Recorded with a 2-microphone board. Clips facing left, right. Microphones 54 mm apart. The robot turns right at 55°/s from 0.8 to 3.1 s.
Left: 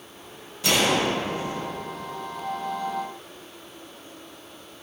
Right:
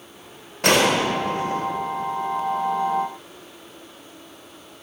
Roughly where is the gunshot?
Right.